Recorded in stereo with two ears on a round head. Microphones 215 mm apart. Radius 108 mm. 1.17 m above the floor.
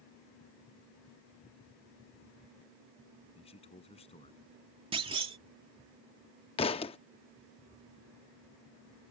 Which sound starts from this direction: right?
A clunk, at 4.9 s.